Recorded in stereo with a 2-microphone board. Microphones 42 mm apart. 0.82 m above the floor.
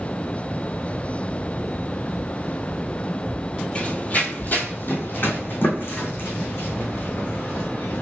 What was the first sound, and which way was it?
Running footsteps, 35° left (ahead or behind).